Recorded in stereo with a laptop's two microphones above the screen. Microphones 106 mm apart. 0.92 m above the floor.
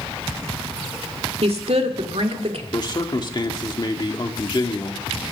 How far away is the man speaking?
About 1.9 m.